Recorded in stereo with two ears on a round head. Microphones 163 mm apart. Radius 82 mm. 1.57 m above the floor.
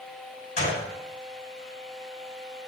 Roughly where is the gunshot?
Left.